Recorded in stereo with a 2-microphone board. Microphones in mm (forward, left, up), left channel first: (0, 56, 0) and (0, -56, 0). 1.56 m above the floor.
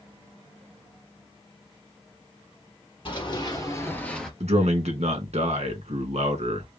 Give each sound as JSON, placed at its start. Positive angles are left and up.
{"t": 3.0, "sound": "running footsteps", "side_deg": 50, "distance_m": 2.5}
{"t": 4.4, "sound": "a man speaking", "side_deg": -85, "distance_m": 1.9}